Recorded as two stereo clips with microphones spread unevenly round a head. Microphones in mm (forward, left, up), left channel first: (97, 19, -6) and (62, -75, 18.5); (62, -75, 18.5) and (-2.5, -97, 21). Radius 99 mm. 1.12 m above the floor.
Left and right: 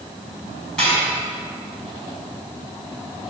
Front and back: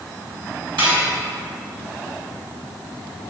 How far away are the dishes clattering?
About 4.5 m.